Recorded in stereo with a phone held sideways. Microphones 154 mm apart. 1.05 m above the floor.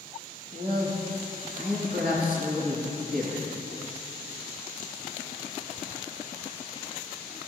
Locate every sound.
0.5 s a man speaking: 65° right (ahead or behind), 1.6 m